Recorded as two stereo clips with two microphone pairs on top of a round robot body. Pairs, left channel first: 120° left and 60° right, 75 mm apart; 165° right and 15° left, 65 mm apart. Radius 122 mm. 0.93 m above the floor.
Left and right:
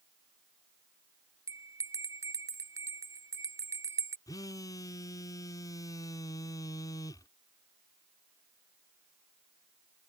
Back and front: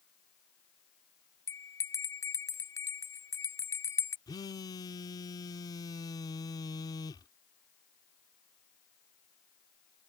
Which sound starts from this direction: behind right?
A bell, at 1.5 s.